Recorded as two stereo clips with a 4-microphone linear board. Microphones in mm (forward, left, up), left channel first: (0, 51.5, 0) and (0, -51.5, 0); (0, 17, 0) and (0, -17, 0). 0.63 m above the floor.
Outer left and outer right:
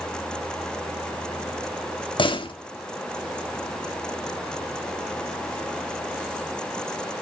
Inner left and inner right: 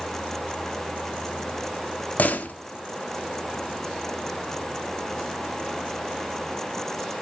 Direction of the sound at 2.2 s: 55° left (ahead or behind).